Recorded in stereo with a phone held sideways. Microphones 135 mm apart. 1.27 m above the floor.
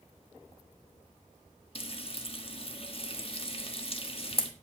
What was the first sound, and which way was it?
Frying, 45° left (ahead or behind).